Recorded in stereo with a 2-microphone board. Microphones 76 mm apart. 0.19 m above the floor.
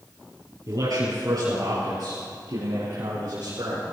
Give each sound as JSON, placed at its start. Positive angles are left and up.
{"t": 0.7, "sound": "a man speaking", "side_deg": -55, "distance_m": 4.0}